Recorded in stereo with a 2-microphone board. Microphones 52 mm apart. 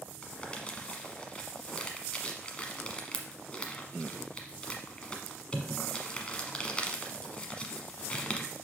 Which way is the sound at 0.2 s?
20° left (ahead or behind).